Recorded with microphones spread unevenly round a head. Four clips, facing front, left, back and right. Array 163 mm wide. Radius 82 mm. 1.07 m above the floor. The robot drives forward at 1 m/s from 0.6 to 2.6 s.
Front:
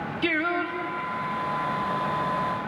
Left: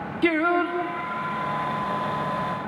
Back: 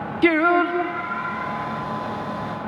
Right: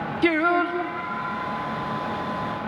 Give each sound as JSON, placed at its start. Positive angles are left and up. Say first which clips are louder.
{"t": 0.2, "sound": "singing", "louder": "right 1 dB, back 10 dB", "azimuth_deg": -175, "distance_m": 0.8}